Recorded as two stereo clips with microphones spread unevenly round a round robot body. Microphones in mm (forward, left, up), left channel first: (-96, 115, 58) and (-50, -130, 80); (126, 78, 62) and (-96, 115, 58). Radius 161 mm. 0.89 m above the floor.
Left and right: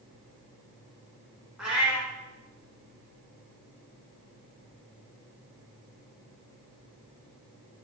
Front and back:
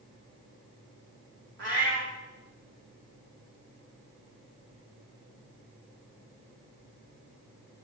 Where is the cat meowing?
160° right, 1.0 m.